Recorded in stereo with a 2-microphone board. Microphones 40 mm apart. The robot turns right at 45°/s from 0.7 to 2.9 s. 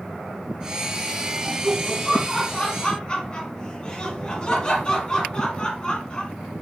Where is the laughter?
20° right, 1.3 m; by 6.3 s 45° left, 1.3 m.